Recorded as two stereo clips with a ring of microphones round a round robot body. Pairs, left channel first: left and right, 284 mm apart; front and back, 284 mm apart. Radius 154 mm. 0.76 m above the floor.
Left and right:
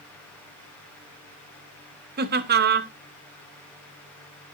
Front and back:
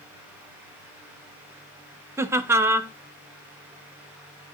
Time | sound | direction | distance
2.2 | laughter | 105° right | 0.7 m